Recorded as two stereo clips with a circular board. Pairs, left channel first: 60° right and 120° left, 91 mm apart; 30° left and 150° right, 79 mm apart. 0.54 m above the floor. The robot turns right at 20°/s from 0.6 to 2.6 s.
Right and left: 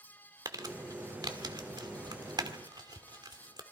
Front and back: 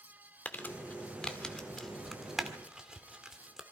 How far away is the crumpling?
About 1.7 m.